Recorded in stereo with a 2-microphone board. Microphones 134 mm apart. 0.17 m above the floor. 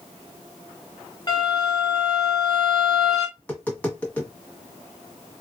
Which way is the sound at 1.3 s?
35° left (ahead or behind).